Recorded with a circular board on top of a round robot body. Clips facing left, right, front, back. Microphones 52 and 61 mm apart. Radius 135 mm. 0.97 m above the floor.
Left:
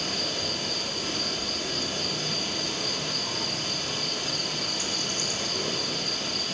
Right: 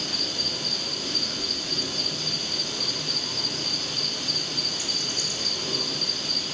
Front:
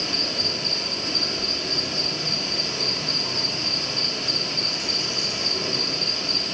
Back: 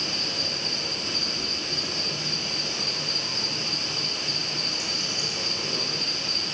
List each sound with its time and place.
0.0 s an insect: 40° left, 9 m